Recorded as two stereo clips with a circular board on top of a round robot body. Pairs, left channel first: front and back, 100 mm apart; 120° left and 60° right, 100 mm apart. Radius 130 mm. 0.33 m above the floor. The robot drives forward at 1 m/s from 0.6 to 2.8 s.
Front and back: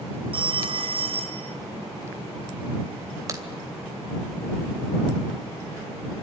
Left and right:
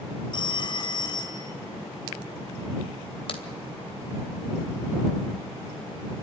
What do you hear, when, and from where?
0.3 s a phone ringing: 155° left, 1.1 m; by 1.6 s 165° left, 2.0 m
3.3 s a crack: 130° left, 2.5 m